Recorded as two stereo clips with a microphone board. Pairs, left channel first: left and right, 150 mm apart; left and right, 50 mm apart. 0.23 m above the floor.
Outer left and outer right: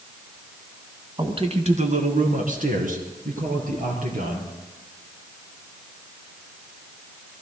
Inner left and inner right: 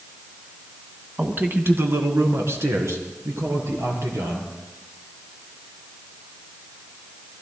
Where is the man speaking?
30° right (ahead or behind), 1.7 m; by 4.5 s 65° right (ahead or behind), 5.5 m.